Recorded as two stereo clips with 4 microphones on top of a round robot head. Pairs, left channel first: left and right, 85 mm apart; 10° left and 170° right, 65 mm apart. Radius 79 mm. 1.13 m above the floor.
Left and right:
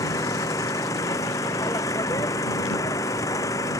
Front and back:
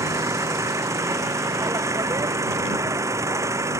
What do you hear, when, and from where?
0.0 s an engine running: 150° left